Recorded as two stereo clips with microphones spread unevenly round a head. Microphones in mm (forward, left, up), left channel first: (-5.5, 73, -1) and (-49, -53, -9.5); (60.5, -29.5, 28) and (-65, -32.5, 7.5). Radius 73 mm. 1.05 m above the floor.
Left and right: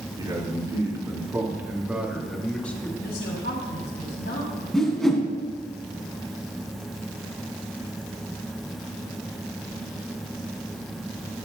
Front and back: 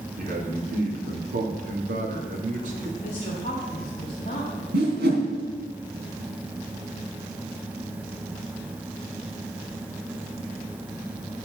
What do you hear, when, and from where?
0.2 s a man speaking: 170° right, 3 m; by 2.9 s 145° left, 1.7 m
3.0 s a woman speaking: 55° left, 2.5 m
4.7 s a whoosh: 155° left, 2.5 m